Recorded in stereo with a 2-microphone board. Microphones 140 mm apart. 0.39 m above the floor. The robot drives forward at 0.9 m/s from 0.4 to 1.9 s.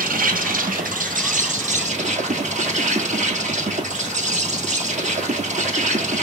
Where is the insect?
85° right, 1.7 m; by 6.2 s 55° right (ahead or behind), 2 m.